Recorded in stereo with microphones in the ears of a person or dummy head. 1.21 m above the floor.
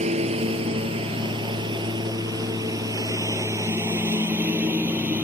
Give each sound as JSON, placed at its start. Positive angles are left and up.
{"t": 0.0, "sound": "a lawn mower", "side_deg": -35}